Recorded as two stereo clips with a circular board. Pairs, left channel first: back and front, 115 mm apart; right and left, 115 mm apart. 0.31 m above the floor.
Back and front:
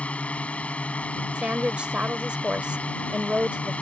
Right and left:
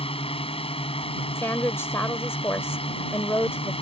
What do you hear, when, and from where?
0.0 s a drone: 105° right
1.4 s a woman speaking: 65° right